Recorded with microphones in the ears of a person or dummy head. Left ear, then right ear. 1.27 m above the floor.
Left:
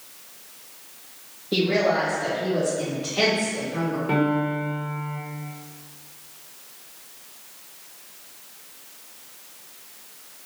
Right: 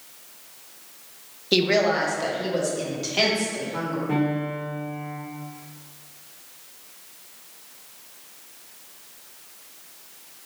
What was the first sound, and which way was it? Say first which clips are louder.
A woman speaking: right 1 dB; 60° right (ahead or behind).